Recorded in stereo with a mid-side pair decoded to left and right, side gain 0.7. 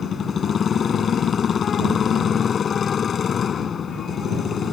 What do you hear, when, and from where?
0.0 s a motorcycle: 30° left